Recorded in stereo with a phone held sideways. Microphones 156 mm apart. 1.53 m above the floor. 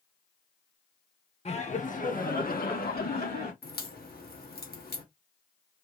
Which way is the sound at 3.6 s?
90° left.